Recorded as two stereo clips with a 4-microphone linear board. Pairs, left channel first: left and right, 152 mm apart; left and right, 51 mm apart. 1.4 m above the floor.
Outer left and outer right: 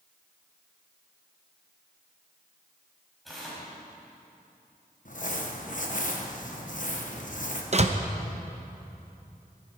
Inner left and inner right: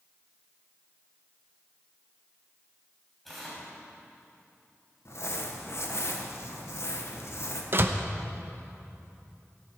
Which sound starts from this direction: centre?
Tearing paper, at 3.2 s.